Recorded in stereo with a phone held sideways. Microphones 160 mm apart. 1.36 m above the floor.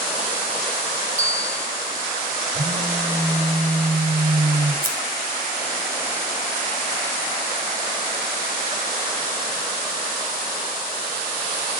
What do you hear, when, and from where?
1.2 s a bell: 50° right (ahead or behind), 0.9 m
2.5 s a phone buzzing: 85° right, 8.5 m
4.8 s scissors: 65° right (ahead or behind), 3.5 m